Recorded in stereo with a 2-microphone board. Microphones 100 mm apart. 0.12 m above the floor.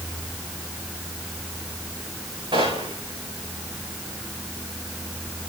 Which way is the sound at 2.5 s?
55° right (ahead or behind).